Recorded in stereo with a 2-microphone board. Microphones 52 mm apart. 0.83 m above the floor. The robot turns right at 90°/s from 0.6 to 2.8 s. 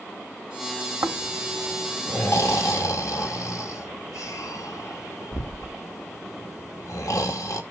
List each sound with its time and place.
1.0 s snoring: 60° right (ahead or behind), 1.5 m; by 7.6 s 80° left, 1.5 m